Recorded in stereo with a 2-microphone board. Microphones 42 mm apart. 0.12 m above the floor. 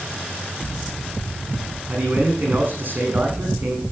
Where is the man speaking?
40° right (ahead or behind), 5.5 m.